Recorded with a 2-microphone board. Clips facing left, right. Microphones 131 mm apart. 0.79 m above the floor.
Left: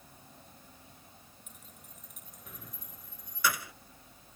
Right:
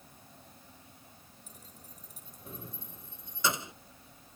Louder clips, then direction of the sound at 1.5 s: Right 1 dB; 35° right (ahead or behind).